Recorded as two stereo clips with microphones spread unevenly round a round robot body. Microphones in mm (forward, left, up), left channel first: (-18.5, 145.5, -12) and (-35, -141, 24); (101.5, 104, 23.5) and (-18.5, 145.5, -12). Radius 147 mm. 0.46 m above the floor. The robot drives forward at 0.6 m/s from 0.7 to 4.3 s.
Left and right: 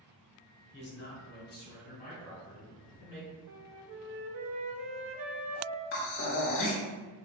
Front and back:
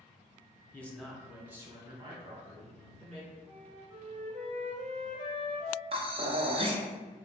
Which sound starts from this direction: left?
A man speaking, at 0.7 s.